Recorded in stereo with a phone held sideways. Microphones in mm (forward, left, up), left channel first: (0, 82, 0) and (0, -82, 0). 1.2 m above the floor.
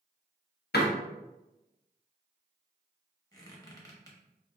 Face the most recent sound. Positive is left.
turn(degrees=20)  # may be behind; listen again after turning